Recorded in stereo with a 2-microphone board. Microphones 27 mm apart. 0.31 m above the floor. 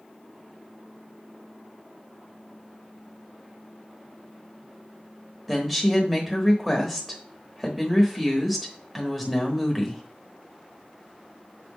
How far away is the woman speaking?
About 0.9 m.